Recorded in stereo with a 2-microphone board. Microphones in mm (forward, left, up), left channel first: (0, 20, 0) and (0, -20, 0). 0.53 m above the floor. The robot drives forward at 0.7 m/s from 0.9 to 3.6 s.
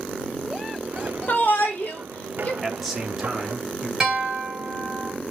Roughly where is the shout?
Left.